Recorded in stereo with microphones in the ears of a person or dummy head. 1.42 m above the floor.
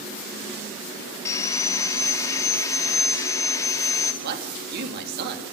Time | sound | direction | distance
1.2 | sawing | 20° left (ahead or behind) | 2.5 m
4.2 | a man speaking | 60° right (ahead or behind) | 3 m